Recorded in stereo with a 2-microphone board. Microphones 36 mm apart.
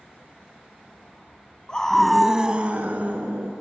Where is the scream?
25° left (ahead or behind), 1.2 m; by 3.5 s 60° right (ahead or behind), 2 m.